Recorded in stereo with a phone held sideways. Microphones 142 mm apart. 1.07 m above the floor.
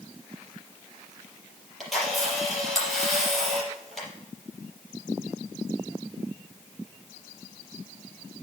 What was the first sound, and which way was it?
A camera shutter, centre (ahead or behind).